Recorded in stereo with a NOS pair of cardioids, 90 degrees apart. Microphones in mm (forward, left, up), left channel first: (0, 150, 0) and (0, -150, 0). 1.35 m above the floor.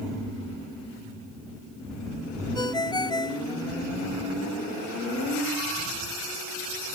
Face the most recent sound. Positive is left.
turn(degrees=15)